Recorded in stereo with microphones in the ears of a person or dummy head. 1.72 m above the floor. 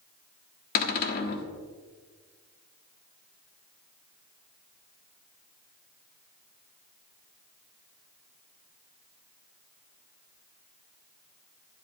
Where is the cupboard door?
50° left (ahead or behind), 1.5 m.